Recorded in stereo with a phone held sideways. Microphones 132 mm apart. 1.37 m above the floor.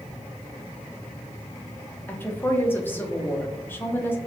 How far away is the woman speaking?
About 0.7 m.